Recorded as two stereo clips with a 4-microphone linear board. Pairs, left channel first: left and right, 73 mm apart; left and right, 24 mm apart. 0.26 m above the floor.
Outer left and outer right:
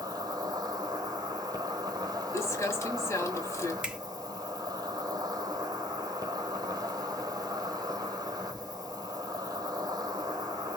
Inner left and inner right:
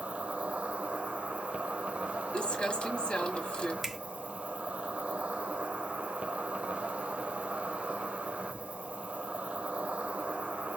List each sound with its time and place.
0.0 s an insect: 60° right (ahead or behind), 1.0 m
2.3 s crumpling: 40° left (ahead or behind), 1.9 m
3.8 s a finger snap: 15° right (ahead or behind), 1.0 m